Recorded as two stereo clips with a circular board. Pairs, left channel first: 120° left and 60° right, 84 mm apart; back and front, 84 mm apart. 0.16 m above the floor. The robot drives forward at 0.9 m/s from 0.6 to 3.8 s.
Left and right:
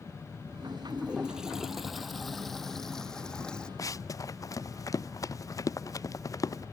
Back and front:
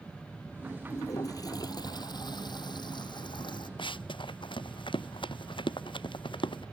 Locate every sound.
0.9 s a toilet flushing: 135° right; by 3.7 s 160° right
3.8 s running footsteps: 170° left